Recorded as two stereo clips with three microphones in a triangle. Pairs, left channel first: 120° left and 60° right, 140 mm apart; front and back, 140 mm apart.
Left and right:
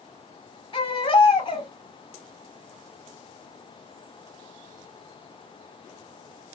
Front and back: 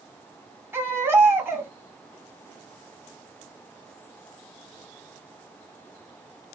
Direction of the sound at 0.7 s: 120° left.